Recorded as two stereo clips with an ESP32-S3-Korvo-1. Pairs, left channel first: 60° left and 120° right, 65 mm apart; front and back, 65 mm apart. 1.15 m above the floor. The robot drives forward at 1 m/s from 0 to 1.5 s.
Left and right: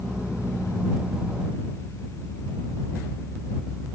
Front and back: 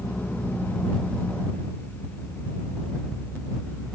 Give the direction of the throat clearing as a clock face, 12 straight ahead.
No throat clearing in this recording.